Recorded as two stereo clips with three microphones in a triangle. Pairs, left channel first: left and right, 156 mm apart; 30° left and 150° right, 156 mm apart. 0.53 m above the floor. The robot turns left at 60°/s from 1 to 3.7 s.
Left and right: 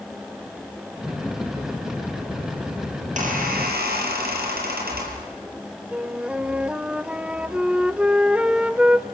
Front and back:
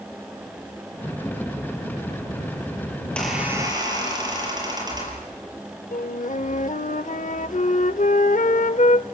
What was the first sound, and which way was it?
A squeak, 45° right.